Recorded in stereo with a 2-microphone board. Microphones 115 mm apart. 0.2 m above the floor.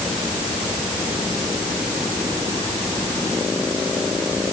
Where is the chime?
No chime in this recording.